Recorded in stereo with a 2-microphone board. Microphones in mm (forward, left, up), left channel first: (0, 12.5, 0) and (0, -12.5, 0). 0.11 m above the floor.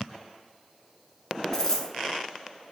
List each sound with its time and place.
1.5 s a dropped coin: 20° left (ahead or behind), 0.7 m